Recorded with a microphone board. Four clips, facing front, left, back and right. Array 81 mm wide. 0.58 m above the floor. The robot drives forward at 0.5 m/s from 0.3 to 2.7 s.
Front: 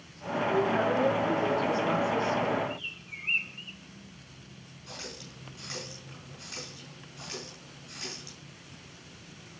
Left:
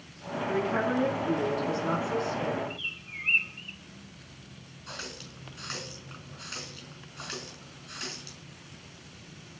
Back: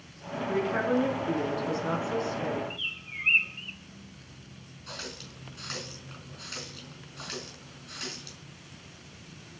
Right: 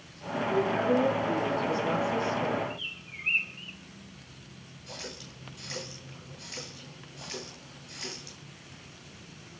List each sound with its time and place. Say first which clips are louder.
0.5 s a woman speaking: right 2 dB, front 1 dB; 125° left, 4.5 m; by 2.6 s 135° left, 5.5 m
2.7 s a bird: even, even; straight behind, 0.7 m
4.9 s a running tap: left 1 dB, back 2 dB; 125° left, 4.5 m